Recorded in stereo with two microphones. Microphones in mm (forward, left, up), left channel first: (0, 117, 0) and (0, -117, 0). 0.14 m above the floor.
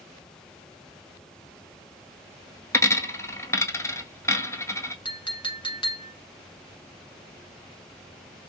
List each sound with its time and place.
2.7 s a dropped coin: 10° left (ahead or behind), 0.6 m
5.0 s a clink: 20° left (ahead or behind), 0.9 m